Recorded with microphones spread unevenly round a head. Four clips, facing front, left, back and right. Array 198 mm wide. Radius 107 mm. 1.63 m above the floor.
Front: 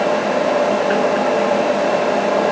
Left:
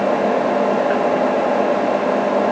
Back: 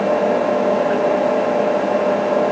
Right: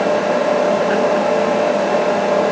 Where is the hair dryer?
I don't hear a hair dryer.